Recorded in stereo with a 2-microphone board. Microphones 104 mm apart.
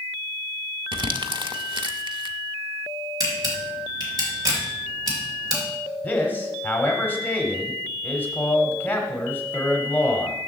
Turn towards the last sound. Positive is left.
turn(degrees=20)  # may be behind; listen again after turning